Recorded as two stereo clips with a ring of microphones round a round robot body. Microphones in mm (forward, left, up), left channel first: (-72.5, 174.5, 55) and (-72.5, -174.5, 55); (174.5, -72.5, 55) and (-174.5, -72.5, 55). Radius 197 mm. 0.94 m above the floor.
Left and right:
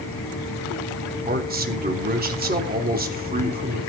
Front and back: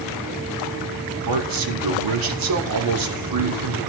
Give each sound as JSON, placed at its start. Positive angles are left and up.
{"t": 1.3, "sound": "a man speaking", "azimuth_deg": -155, "distance_m": 3.5}